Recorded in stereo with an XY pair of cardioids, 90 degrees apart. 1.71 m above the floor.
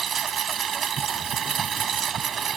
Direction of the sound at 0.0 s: 65° right.